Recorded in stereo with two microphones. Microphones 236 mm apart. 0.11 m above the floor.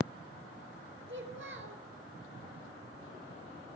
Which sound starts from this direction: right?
A child speaking, at 1.1 s.